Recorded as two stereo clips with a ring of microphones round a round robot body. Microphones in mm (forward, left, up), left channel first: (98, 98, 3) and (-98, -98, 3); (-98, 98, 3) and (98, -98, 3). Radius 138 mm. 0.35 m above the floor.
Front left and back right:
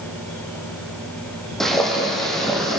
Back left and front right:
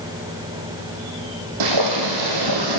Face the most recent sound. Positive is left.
turn(degrees=-45)